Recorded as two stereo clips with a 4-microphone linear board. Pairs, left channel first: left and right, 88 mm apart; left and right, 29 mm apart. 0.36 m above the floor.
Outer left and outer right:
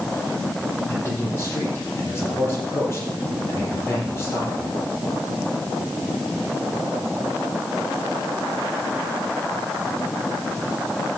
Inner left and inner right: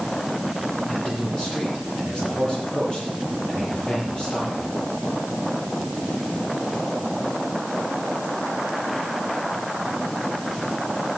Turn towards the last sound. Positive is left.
turn(degrees=30)  # may be behind; listen again after turning